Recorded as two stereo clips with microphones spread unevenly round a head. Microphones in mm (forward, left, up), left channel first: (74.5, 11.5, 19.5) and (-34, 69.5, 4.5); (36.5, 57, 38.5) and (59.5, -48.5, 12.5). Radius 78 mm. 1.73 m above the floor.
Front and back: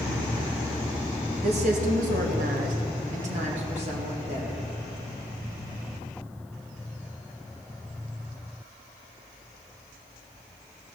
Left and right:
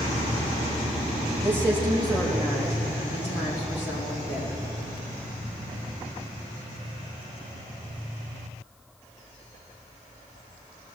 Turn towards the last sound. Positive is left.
turn(degrees=110)